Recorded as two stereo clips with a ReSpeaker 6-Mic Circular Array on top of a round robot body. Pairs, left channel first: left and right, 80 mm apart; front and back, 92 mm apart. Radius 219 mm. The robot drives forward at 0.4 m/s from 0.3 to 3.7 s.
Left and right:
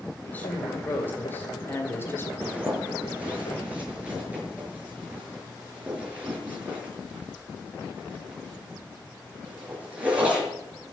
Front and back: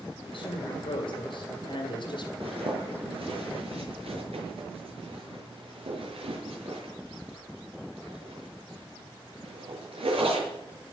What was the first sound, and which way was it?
A woman speaking, 20° left.